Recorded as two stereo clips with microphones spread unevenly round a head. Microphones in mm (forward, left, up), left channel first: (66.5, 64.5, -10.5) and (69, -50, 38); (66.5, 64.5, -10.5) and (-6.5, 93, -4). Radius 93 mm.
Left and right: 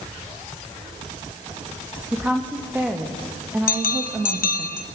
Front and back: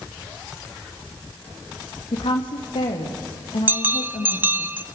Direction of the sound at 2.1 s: 15° right.